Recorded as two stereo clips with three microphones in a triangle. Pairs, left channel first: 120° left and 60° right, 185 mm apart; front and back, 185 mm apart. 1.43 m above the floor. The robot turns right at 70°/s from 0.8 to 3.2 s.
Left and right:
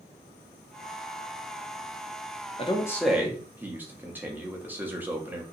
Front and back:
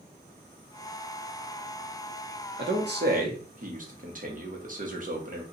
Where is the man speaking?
175° left, 0.9 m; by 5.4 s 140° right, 0.9 m.